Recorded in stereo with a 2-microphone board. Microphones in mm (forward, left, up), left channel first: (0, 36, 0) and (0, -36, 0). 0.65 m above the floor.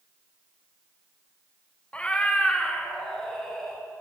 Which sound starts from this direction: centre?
A cat meowing, at 1.9 s.